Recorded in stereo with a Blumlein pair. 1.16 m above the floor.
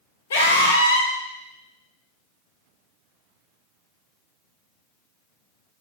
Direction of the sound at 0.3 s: 60° left.